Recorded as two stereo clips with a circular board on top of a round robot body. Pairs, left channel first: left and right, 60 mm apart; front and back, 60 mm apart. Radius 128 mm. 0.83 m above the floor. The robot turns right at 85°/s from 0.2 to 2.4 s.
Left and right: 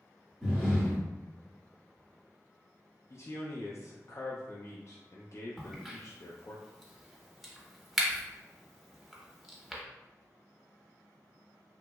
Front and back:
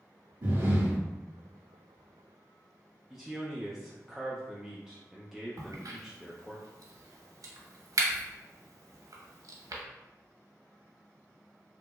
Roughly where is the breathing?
Behind.